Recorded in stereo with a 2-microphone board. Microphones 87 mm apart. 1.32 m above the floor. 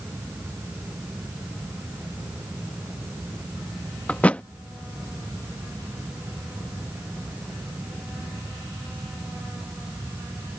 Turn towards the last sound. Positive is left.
turn(degrees=15)  # may be behind; listen again after turning